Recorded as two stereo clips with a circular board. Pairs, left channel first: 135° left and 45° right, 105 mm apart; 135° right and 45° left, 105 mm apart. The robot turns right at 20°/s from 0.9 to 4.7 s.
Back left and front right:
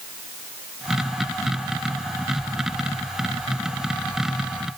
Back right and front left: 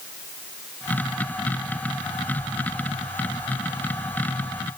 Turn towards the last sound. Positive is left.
No sound to turn to.